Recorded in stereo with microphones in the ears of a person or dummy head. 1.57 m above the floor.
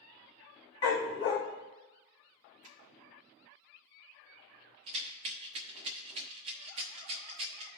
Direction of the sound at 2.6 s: 35° right (ahead or behind).